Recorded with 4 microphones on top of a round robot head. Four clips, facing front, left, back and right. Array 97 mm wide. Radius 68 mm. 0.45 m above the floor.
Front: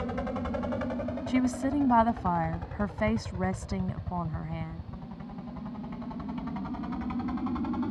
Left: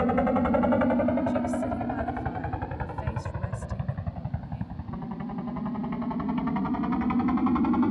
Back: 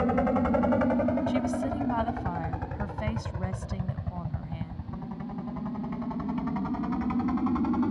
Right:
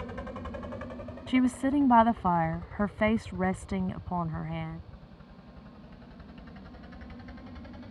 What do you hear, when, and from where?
0.0 s a helicopter: 120° left; by 7.9 s 105° left
1.3 s a woman speaking: 65° right